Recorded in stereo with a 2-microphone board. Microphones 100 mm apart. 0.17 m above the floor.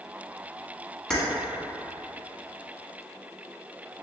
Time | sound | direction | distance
1.1 | keys jangling | 5° left (ahead or behind) | 0.9 m